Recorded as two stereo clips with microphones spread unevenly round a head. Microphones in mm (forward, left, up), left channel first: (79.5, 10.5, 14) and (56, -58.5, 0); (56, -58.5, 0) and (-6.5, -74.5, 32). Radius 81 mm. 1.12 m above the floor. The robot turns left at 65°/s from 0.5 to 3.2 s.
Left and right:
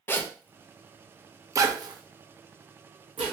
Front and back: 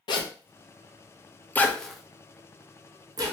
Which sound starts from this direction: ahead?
A zipper, at 0.1 s.